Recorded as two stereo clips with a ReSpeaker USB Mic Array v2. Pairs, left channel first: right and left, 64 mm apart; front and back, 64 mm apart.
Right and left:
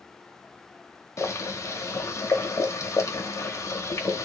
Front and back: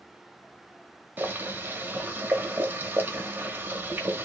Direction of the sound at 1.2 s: 120° right.